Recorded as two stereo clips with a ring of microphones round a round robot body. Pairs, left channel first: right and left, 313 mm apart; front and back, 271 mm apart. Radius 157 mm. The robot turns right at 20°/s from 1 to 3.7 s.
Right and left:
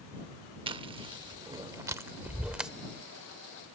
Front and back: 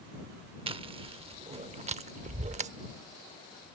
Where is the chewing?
140° left; by 2.7 s 175° left.